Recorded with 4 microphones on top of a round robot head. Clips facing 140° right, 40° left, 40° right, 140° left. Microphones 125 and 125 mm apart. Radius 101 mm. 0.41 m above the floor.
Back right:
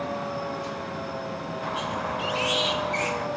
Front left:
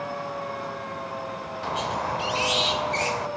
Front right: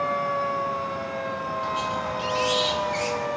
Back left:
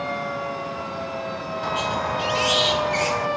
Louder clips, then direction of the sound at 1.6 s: Front left 3 dB, back left 6 dB; 100° left.